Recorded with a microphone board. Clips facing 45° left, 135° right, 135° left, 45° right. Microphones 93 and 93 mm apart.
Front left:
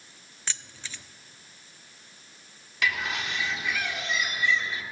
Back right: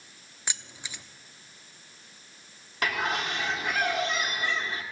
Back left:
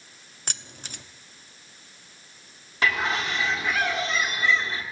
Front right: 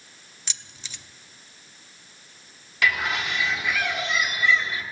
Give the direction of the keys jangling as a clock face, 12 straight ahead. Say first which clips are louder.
Even, back left 4 dB; 7 o'clock.